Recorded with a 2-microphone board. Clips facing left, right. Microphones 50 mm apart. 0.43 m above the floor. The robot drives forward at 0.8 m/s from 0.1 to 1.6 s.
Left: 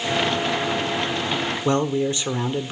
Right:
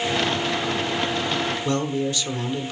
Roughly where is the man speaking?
Left.